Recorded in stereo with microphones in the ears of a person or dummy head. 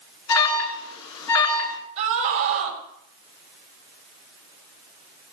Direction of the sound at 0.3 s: 85° left.